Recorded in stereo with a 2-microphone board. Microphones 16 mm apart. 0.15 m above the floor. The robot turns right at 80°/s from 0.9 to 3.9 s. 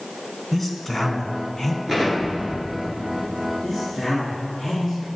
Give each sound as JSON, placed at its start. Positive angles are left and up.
{"t": 0.5, "sound": "a man speaking", "side_deg": 20, "distance_m": 1.1}
{"t": 1.9, "sound": "an explosion", "azimuth_deg": -140, "distance_m": 1.8}
{"t": 3.6, "sound": "a man speaking", "side_deg": 10, "distance_m": 2.0}